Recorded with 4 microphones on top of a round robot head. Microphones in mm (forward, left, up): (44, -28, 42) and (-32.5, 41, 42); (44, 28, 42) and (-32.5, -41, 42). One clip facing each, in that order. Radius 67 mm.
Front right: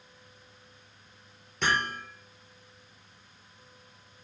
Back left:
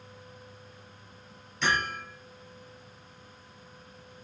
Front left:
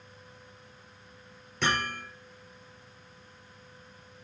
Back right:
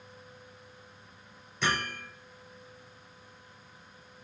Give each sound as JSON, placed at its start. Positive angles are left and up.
{"t": 1.6, "sound": "hammering", "azimuth_deg": 5, "distance_m": 5.5}